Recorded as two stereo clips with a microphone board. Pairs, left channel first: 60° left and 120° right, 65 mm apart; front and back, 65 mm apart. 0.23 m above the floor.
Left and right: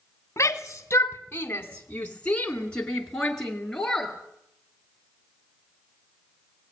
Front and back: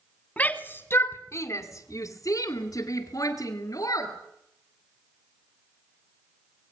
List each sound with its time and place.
0.4 s a shout: 55° left, 1.5 m; by 4.1 s 25° right, 3.5 m